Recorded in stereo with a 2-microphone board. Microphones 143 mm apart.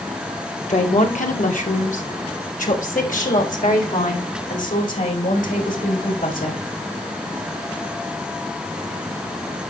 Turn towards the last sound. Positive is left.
turn(degrees=70)  # may be behind; listen again after turning